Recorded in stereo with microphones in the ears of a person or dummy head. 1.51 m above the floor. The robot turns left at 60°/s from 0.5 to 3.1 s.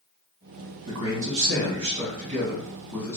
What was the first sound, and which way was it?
A man speaking, 65° right.